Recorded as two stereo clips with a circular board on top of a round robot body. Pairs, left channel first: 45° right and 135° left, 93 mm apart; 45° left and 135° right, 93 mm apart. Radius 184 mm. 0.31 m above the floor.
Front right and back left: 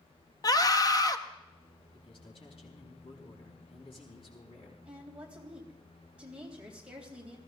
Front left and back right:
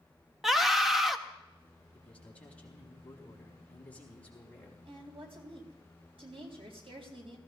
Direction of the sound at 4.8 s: 145° right.